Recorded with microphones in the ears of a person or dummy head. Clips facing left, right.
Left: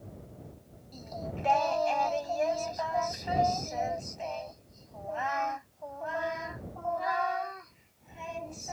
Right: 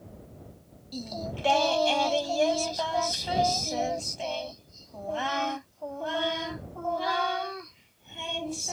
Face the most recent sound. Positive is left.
turn(degrees=-45)  # may be behind; listen again after turning